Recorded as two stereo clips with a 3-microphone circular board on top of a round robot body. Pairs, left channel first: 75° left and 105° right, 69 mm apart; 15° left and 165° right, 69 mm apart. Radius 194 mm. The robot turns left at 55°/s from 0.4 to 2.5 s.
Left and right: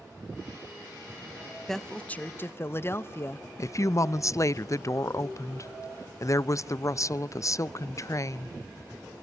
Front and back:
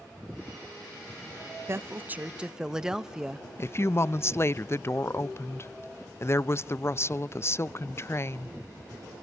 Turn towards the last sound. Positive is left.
turn(degrees=55)